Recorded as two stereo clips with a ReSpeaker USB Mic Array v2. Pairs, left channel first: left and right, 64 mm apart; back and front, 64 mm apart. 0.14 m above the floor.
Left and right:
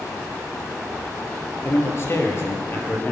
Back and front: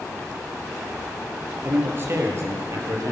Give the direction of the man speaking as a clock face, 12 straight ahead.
10 o'clock.